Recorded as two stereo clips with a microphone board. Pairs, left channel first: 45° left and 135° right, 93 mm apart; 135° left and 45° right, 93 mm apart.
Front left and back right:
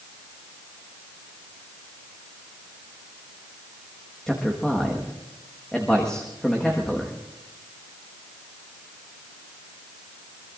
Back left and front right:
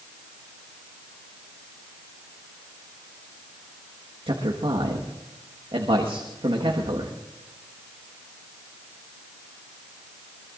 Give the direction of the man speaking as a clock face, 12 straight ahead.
1 o'clock.